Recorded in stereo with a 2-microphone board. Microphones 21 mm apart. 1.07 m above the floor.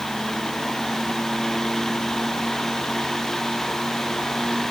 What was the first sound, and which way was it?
Only background noise.